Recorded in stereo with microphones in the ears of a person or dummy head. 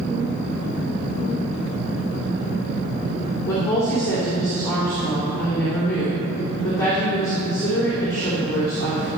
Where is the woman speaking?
15° left (ahead or behind), 3 m.